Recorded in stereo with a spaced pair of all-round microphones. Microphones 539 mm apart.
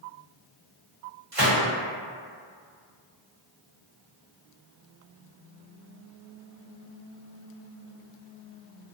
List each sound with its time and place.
1.3 s a gunshot: 70° right (ahead or behind), 1.5 m